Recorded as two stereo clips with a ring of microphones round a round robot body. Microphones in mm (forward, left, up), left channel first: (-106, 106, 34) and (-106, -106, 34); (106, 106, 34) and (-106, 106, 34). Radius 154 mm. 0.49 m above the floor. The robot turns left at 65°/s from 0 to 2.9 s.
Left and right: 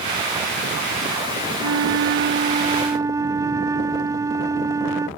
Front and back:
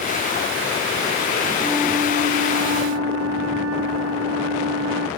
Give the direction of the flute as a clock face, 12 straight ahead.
3 o'clock.